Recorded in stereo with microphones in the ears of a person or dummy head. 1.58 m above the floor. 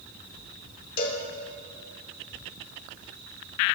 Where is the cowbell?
60° left (ahead or behind), 1.0 m.